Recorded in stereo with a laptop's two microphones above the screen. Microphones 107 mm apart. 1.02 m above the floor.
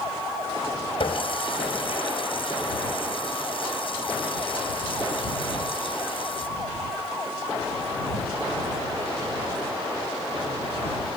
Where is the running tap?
60° left (ahead or behind).